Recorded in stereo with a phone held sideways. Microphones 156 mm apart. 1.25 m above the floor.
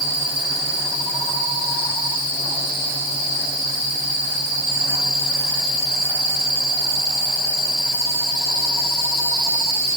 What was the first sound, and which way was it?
Only background noise.